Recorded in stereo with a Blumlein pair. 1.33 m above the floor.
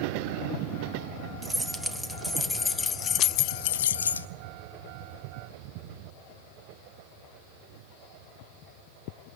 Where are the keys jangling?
10° right, 1.4 m; by 4.3 s 80° left, 0.7 m.